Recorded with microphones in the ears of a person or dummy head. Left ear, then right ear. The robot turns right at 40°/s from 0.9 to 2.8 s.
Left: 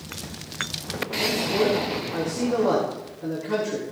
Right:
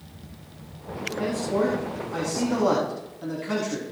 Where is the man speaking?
140° right, 3.5 m; by 3.8 s 75° right, 3.5 m.